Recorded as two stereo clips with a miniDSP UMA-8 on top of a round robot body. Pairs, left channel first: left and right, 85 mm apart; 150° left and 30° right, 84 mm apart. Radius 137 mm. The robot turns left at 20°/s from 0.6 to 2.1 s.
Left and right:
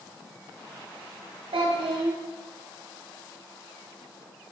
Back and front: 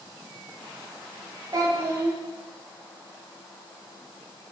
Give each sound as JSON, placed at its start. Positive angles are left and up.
{"t": 1.5, "sound": "a child speaking", "azimuth_deg": -80, "distance_m": 0.9}